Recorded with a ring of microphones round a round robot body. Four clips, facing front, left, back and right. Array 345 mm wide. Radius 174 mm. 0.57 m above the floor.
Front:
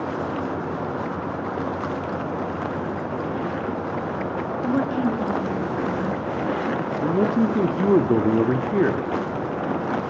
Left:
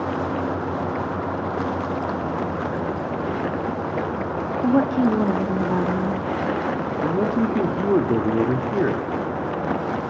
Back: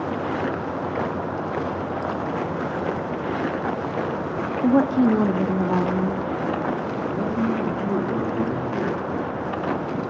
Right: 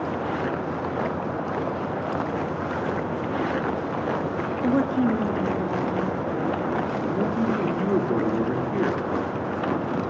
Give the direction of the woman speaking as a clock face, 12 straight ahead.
7 o'clock.